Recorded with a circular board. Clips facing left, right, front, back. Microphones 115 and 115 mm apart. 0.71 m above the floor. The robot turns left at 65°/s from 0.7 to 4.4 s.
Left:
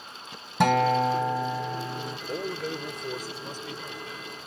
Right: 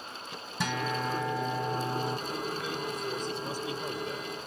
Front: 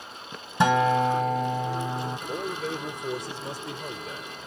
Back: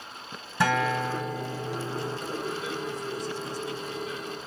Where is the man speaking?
70° left; by 4.3 s 65° right.